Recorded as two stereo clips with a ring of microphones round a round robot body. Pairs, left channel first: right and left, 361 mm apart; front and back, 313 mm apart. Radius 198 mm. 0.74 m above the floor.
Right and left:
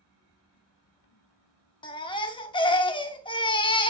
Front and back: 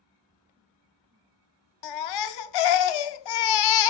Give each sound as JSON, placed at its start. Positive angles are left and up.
{"t": 1.8, "sound": "a baby crying", "azimuth_deg": -15, "distance_m": 0.5}